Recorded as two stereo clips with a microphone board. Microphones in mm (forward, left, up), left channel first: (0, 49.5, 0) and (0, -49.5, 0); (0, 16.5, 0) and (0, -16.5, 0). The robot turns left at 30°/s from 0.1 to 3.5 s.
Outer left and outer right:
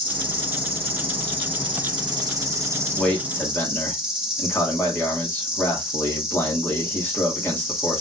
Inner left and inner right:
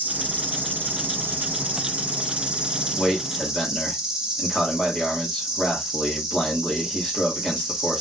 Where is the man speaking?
5° left (ahead or behind), 2 m; by 8.0 s 20° left (ahead or behind), 2 m.